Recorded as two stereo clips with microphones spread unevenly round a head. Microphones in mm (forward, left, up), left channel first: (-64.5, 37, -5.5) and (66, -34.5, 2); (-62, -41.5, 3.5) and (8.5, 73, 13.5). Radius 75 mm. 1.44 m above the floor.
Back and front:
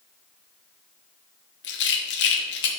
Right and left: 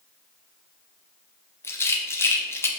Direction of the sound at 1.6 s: 165° left.